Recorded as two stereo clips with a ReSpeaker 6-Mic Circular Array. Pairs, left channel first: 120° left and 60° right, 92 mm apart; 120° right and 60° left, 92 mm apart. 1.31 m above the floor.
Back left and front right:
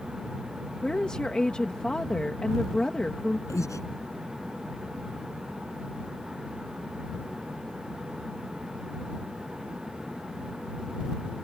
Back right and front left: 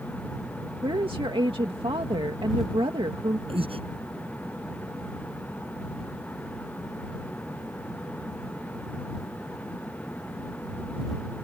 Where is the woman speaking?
40° left.